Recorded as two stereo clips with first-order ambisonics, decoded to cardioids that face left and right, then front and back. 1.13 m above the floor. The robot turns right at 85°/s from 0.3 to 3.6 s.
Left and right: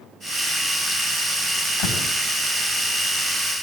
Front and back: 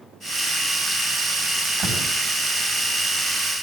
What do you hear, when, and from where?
1.8 s a door slam: 120° left, 7 m; by 2.1 s 145° left, 7 m